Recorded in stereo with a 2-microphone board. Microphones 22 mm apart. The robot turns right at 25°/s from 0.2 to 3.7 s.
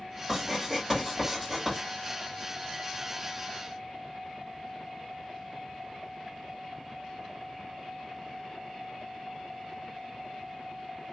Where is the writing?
20° right (ahead or behind), 1.6 m; by 1.8 s 30° right (ahead or behind), 1.6 m.